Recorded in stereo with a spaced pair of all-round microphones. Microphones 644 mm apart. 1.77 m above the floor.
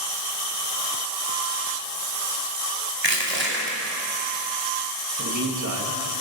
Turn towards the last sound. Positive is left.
turn(degrees=-30)  # may be behind; listen again after turning